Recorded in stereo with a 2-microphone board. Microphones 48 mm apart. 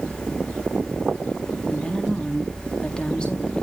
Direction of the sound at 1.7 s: 20° left (ahead or behind).